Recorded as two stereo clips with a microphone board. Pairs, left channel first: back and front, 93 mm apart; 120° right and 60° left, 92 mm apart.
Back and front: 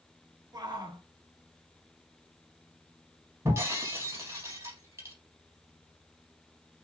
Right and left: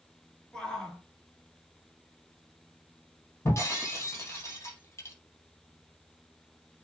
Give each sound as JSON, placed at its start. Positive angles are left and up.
{"t": 0.5, "sound": "a shout", "azimuth_deg": -40, "distance_m": 3.5}
{"t": 3.5, "sound": "breaking glass", "azimuth_deg": -60, "distance_m": 3.5}